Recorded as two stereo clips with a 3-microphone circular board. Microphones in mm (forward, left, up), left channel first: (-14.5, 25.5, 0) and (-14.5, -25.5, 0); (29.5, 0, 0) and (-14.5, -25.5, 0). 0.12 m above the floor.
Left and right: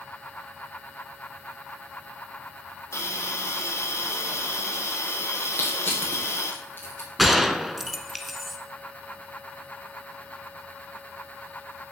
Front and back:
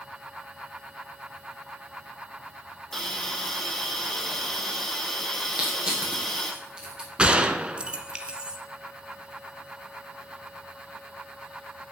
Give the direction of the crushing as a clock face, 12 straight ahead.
7 o'clock.